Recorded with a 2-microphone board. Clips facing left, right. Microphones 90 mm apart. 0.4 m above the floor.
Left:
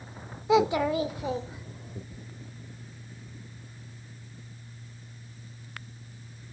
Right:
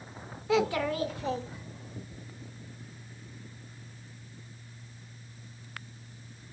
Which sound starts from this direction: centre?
A child speaking, at 0.5 s.